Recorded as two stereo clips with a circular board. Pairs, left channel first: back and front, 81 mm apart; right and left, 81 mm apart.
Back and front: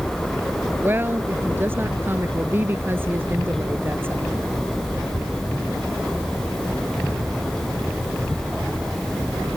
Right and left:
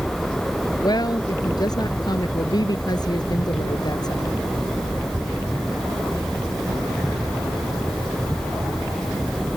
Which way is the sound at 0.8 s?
60° right.